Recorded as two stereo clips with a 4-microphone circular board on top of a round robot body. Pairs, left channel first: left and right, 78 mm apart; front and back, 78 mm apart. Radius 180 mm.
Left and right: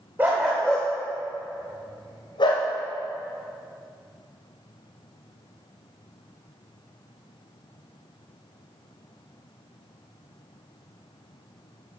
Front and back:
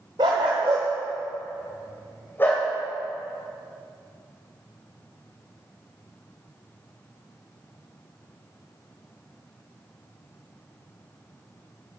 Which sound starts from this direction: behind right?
A dog barking, at 0.2 s.